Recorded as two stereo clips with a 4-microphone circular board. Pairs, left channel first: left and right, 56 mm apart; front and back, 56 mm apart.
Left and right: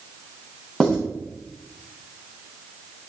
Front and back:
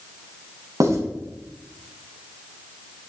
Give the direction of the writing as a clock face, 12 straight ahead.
6 o'clock.